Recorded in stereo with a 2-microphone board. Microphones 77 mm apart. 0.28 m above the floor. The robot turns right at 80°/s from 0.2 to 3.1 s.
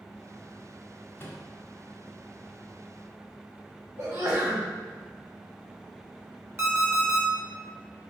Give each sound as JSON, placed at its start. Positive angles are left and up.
{"t": 1.2, "sound": "a microwave", "side_deg": 30, "distance_m": 0.9}
{"t": 4.0, "sound": "a sneeze", "side_deg": -45, "distance_m": 1.5}
{"t": 6.6, "sound": "an alarm clock", "side_deg": -35, "distance_m": 1.0}